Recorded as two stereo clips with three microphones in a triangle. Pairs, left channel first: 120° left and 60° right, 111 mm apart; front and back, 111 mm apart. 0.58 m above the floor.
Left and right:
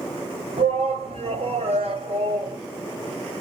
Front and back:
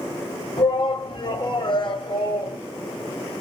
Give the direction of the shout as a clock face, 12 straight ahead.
1 o'clock.